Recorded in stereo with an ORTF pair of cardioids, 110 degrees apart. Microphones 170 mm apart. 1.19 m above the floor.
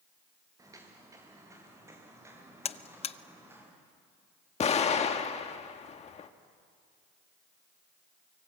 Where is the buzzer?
35° left, 0.8 m.